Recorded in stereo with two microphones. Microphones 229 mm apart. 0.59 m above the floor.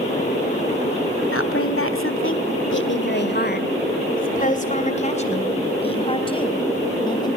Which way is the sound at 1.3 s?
70° left (ahead or behind).